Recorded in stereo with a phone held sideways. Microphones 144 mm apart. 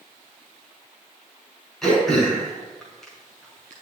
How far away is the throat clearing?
About 6 m.